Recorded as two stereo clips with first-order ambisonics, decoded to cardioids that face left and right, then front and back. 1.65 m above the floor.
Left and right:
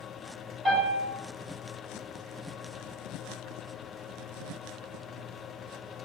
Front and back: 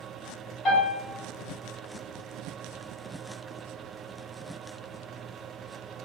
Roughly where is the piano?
Ahead right.